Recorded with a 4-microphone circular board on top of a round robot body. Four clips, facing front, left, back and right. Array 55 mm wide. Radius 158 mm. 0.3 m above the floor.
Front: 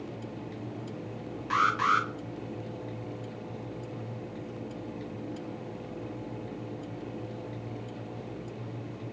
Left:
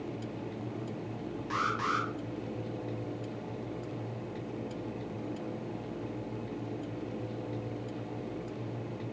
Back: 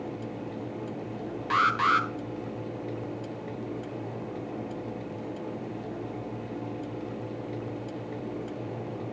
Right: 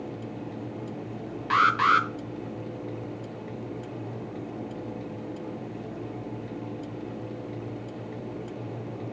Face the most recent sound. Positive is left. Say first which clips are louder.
# right 11 dB, back 2 dB
turn(degrees=-105)